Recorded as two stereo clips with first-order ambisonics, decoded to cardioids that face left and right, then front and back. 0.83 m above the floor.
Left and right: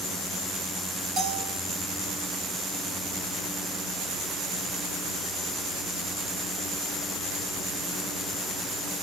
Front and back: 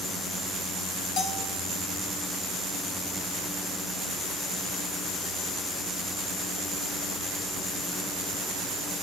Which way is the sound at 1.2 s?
40° right.